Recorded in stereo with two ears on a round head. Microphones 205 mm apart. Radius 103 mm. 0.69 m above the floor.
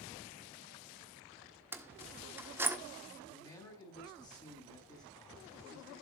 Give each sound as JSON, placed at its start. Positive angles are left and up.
{"t": 1.7, "sound": "keys jangling", "side_deg": -10, "distance_m": 1.2}
{"t": 3.2, "sound": "a man speaking", "side_deg": 20, "distance_m": 6.5}